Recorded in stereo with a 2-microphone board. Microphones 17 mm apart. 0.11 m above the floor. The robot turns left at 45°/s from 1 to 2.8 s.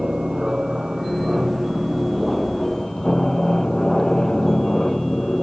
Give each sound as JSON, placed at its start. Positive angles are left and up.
{"t": 0.0, "sound": "an aircraft", "azimuth_deg": -130}